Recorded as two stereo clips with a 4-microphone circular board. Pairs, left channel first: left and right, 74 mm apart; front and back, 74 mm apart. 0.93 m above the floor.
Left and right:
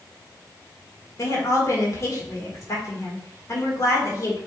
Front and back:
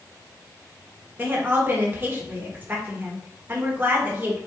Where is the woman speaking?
120° left, 1.4 m.